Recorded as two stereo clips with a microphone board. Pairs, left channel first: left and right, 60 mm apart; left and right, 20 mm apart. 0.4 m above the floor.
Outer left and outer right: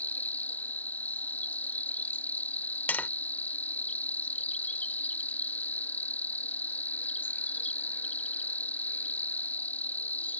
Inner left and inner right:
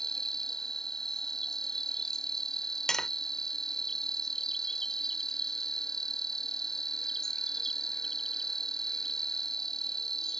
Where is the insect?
30° left (ahead or behind).